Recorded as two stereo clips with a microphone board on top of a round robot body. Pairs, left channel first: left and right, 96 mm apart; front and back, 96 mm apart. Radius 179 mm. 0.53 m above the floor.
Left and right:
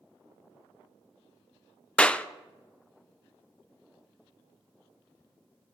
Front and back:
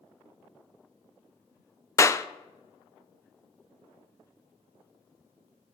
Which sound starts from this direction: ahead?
A clap, at 2.0 s.